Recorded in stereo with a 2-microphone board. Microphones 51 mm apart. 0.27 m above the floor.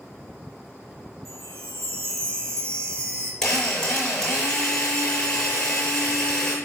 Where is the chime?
85° right, 3.5 m.